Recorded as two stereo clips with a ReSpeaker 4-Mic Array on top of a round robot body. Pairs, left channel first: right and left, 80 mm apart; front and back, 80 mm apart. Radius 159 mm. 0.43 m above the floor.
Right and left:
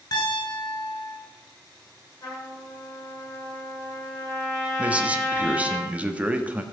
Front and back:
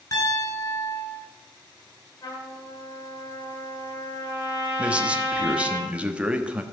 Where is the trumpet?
35° right, 6 m.